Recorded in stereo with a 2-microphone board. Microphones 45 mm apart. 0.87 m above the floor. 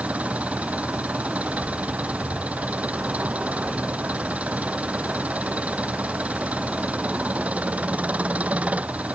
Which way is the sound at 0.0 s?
30° right (ahead or behind).